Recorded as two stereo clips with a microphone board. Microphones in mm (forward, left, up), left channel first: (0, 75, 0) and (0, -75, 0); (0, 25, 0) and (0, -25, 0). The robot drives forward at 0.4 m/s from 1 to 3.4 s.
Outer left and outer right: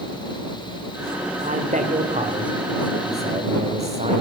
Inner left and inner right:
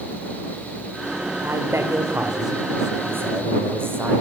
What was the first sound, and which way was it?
A man speaking, 60° right (ahead or behind).